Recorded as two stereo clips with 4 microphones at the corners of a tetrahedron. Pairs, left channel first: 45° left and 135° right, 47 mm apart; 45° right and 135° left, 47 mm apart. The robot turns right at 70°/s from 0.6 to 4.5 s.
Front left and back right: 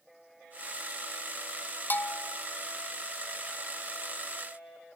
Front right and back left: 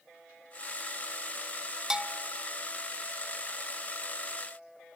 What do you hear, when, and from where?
1.9 s a bell: 60° left, 0.6 m; by 2.4 s 95° left, 0.6 m